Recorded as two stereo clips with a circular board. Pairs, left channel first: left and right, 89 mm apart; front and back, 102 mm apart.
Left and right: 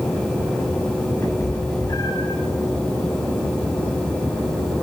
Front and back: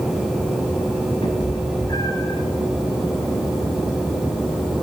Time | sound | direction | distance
1.2 | a cat meowing | 30° left | 1.9 m